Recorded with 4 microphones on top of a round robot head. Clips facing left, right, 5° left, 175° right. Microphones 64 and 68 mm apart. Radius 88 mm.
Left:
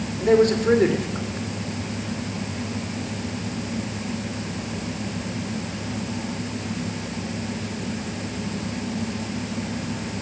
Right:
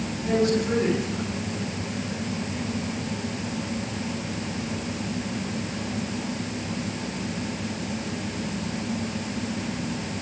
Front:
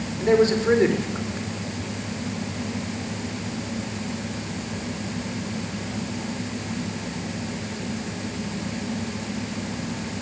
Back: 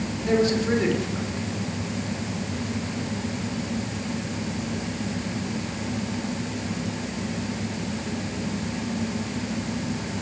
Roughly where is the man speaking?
Ahead left.